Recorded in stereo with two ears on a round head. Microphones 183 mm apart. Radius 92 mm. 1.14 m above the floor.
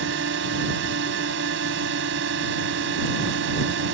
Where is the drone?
60° right (ahead or behind).